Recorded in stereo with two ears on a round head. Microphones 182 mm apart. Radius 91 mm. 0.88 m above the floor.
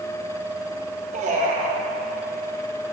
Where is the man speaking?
35° right (ahead or behind), 1.1 m.